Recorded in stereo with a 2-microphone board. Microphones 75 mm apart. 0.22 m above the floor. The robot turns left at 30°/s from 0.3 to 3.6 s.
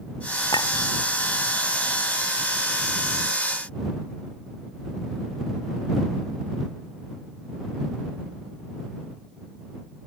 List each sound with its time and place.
0.5 s a clink: 70° left (ahead or behind); by 0.7 s 65° left (ahead or behind)